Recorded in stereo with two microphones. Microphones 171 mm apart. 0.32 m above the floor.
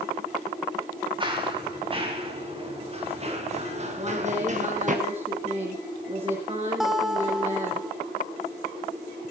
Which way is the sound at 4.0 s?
35° right (ahead or behind).